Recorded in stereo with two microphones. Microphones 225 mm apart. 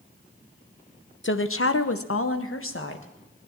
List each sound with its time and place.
1.2 s a woman speaking: 55° left (ahead or behind), 0.9 m; by 3.1 s 60° left (ahead or behind), 1.7 m